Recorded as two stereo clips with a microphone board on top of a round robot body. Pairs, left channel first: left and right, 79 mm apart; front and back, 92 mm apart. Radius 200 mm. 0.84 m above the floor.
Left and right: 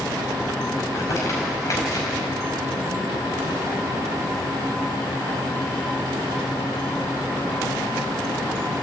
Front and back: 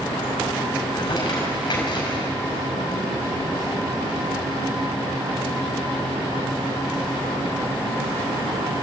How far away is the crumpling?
About 5 m.